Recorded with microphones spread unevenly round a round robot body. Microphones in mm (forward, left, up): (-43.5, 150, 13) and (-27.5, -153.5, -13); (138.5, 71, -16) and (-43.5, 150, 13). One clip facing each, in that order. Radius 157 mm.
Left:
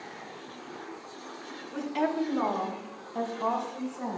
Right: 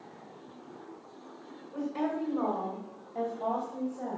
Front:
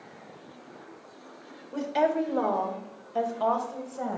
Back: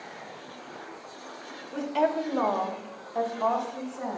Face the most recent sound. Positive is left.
turn(degrees=20)